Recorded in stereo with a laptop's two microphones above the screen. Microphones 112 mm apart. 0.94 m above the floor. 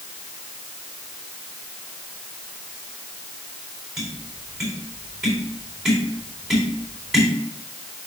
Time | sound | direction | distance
4.0 | tapping | 5° right (ahead or behind) | 4 m